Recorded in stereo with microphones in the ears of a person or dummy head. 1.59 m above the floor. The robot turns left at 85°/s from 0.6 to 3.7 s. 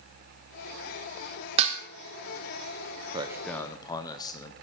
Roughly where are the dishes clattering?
Right.